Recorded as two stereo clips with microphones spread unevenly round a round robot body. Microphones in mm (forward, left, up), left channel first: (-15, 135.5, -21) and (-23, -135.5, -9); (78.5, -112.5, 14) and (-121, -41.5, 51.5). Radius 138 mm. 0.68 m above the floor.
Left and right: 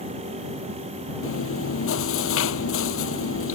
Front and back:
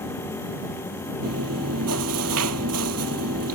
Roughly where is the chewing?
Behind left.